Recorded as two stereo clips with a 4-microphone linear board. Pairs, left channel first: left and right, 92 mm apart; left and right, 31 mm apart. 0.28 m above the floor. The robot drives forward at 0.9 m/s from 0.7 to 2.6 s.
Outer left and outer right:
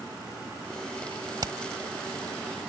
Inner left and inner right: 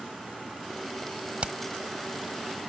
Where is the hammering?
50° right (ahead or behind); by 1.6 s 45° right (ahead or behind).